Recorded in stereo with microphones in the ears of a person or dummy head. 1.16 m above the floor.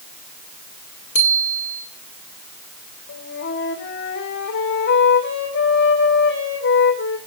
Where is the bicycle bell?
30° left (ahead or behind), 3 m.